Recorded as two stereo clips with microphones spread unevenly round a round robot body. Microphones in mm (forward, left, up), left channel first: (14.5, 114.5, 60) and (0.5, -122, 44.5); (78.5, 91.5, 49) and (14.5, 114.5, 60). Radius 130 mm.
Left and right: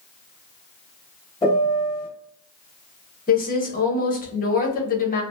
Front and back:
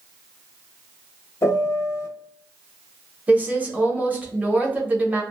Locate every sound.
1.4 s a piano: 20° left, 0.6 m
3.3 s a woman speaking: 95° left, 1.1 m